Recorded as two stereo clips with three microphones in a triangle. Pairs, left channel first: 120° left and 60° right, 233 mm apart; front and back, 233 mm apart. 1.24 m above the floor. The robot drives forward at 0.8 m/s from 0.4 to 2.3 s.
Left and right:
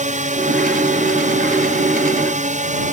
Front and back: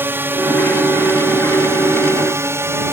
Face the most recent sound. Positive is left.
turn(degrees=-105)